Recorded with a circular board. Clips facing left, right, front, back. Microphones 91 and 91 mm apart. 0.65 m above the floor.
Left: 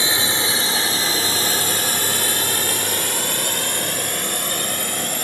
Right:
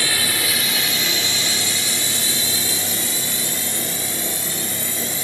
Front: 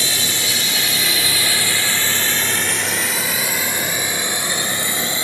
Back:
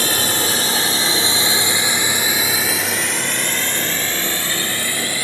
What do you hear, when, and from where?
0.0 s a drone: 155° left; by 5.2 s 65° left